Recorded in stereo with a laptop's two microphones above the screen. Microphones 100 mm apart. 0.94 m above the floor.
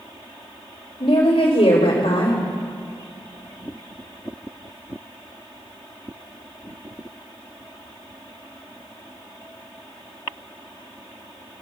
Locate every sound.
1.0 s a woman speaking: 75° left (ahead or behind), 2.5 m